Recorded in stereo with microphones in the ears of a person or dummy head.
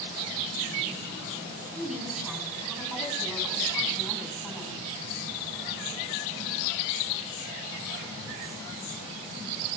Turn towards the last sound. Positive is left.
turn(degrees=-5)  # may be behind; listen again after turning